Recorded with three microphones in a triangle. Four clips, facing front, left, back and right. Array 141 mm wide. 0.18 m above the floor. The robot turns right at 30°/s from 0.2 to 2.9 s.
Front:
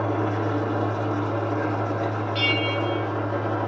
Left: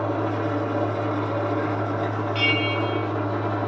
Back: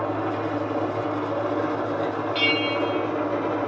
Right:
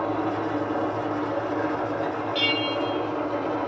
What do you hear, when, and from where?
0.0 s an engine running: 55° left, 2 m; by 3.7 s 135° left, 2 m
2.4 s a bell: 160° left, 0.7 m; by 3.1 s 175° left, 0.7 m